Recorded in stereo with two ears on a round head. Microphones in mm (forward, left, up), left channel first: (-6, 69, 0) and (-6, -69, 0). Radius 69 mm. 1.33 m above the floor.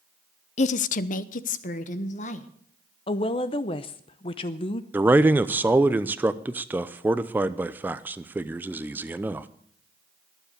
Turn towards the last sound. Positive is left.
turn(degrees=-10)  # may be behind; listen again after turning